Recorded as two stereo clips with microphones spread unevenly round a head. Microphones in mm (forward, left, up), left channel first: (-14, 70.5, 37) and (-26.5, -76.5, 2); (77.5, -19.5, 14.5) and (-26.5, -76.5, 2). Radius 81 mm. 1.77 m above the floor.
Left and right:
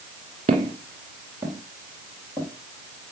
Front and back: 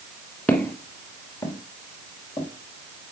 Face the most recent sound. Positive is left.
turn(degrees=20)